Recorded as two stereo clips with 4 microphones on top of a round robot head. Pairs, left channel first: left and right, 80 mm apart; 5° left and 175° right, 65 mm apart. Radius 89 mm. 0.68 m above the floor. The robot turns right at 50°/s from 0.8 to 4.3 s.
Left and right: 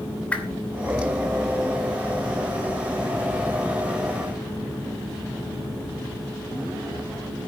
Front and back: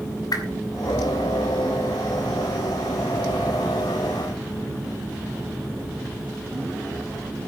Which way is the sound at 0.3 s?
15° left.